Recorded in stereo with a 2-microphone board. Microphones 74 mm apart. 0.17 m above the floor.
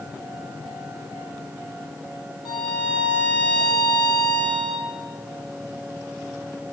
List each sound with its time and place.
2.5 s a violin: 75° left (ahead or behind), 1.3 m